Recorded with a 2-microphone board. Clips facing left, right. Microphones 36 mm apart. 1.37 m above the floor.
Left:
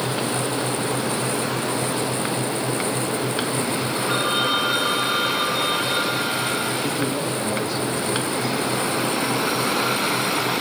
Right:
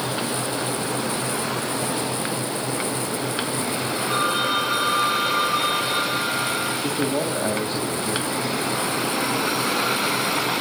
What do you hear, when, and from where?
4.1 s a phone ringing: 45° left (ahead or behind), 6.5 m
6.8 s a man speaking: 35° right (ahead or behind), 2.5 m